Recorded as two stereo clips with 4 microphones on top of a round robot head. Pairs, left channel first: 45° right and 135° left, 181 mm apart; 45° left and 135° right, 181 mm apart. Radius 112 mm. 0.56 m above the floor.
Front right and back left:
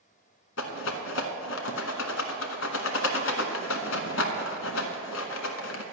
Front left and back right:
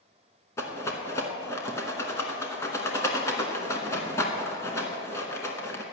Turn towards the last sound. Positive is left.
turn(degrees=-30)